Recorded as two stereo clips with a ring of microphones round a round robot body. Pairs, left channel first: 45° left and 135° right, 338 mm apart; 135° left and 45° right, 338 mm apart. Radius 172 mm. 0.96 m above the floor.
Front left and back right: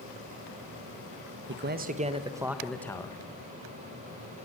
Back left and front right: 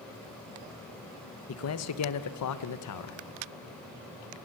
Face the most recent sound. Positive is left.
turn(degrees=120)